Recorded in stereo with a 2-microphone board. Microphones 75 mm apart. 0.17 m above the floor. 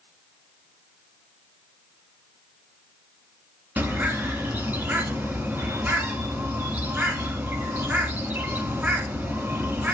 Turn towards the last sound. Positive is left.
turn(degrees=-25)  # may be behind; listen again after turning